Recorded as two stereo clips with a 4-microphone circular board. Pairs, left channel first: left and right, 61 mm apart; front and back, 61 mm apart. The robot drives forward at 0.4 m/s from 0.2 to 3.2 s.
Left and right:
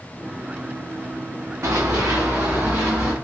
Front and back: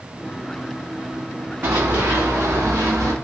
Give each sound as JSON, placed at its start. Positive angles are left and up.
{"t": 1.6, "sound": "running footsteps", "azimuth_deg": -135, "distance_m": 0.7}